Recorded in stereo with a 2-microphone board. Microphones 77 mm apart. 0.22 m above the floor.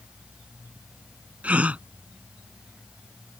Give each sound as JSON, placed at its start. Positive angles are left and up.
{"t": 1.4, "sound": "a gasp", "side_deg": -20}